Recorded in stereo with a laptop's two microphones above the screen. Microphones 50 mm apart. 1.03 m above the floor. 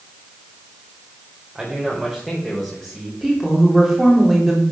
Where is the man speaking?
5° right (ahead or behind), 3.5 m; by 3.1 s 10° left (ahead or behind), 4.5 m.